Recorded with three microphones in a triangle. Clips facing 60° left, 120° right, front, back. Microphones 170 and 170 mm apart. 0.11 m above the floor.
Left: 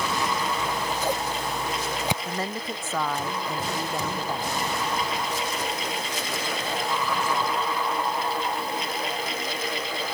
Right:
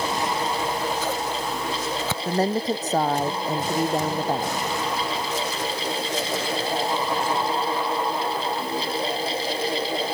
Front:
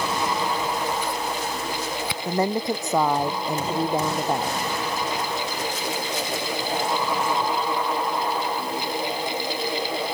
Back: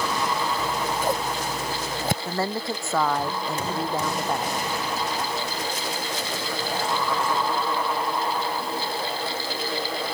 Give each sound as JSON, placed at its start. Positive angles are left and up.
{"t": 0.6, "sound": "scissors", "azimuth_deg": 135}
{"t": 2.2, "sound": "a woman speaking", "azimuth_deg": -70}